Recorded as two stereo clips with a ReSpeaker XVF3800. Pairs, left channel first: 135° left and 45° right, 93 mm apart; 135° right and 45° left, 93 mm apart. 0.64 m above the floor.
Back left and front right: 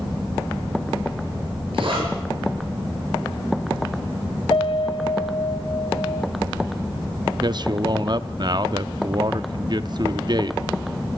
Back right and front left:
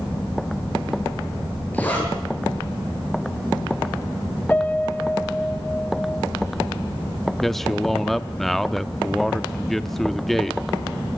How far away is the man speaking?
About 0.7 m.